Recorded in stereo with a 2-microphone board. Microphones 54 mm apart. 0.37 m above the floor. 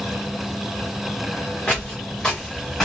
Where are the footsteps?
20° left (ahead or behind), 2.5 m; by 2.9 s 15° left (ahead or behind), 3.5 m.